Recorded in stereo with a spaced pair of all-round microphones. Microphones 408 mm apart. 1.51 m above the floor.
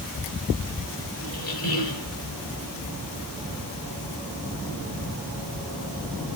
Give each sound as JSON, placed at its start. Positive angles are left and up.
{"t": 1.2, "sound": "a squeak", "side_deg": 55, "distance_m": 1.6}